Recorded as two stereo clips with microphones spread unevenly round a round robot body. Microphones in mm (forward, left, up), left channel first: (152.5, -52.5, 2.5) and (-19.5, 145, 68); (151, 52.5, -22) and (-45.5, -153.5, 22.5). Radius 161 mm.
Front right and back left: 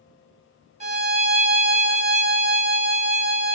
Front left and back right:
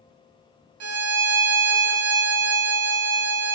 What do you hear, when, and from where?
0.8 s a violin: 155° right, 0.9 m